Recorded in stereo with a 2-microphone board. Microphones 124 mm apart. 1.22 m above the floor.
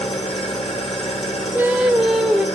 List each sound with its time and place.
0.0 s an engine running: 55° left (ahead or behind), 2 m
1.5 s singing: 10° right (ahead or behind), 0.8 m